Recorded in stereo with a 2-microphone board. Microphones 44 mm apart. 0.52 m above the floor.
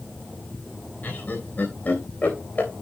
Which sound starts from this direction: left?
Laughter, at 1.0 s.